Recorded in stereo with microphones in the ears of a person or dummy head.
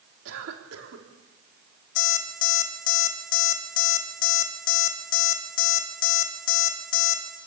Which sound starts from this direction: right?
A cough, at 0.2 s.